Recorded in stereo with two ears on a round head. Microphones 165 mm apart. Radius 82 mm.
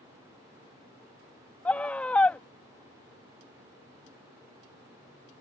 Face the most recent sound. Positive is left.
turn(degrees=10)  # may be behind; listen again after turning